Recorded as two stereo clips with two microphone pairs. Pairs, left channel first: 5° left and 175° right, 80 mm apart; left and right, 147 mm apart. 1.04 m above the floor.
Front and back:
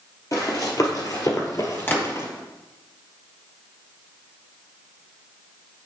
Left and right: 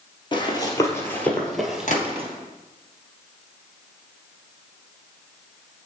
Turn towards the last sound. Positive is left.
turn(degrees=65)